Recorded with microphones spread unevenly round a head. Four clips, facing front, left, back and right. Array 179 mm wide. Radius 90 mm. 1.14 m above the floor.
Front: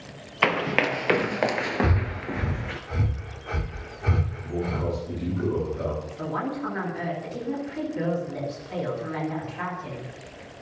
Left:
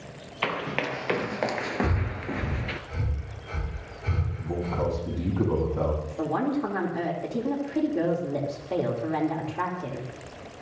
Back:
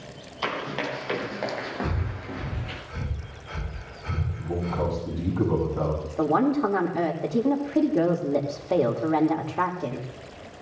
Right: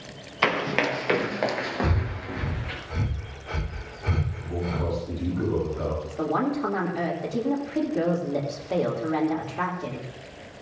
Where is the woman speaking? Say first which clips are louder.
Right 2 dB, back 8 dB; straight behind, 3 m.